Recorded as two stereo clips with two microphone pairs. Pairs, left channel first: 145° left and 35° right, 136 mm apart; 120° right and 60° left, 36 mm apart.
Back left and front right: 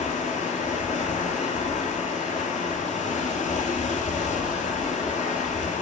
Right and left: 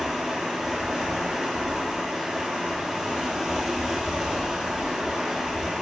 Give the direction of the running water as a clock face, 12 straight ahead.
7 o'clock.